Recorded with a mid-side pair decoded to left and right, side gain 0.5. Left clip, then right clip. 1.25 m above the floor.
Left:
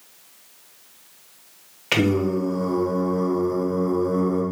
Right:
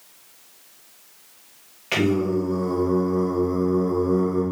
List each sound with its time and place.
1.9 s singing: 35° left, 1.2 m